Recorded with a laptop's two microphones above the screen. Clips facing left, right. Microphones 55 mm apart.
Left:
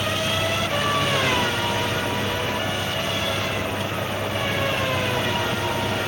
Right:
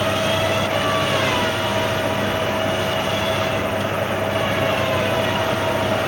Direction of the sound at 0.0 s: 40° right (ahead or behind).